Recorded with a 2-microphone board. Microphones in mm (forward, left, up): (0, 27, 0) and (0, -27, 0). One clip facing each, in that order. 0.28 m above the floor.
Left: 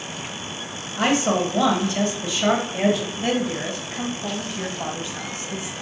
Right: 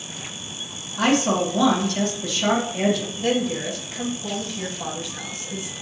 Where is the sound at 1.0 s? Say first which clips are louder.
Even; 25° left (ahead or behind), 1.5 m.